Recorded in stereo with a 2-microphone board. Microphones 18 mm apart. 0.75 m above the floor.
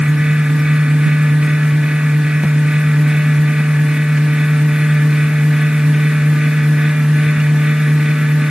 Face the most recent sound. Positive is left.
No sound to turn to.